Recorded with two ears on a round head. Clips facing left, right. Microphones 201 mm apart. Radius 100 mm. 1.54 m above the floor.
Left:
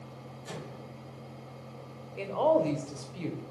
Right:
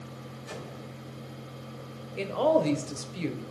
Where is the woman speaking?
20° right (ahead or behind), 1.3 m.